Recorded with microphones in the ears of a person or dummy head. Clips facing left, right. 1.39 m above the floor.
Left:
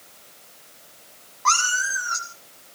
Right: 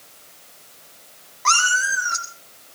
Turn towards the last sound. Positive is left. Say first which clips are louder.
# right 2 dB
turn(degrees=-35)  # may be behind; listen again after turning